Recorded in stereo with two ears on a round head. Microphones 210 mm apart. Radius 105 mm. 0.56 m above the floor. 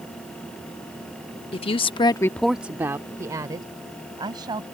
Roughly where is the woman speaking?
Left.